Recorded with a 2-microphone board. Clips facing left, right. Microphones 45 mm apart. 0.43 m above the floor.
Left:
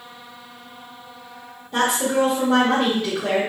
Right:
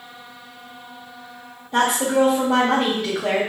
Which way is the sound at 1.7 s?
5° right (ahead or behind).